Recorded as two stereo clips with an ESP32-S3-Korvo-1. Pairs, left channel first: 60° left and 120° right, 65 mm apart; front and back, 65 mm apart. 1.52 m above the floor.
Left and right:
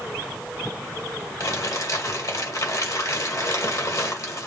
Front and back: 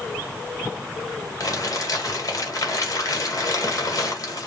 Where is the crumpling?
30° left, 1.6 m.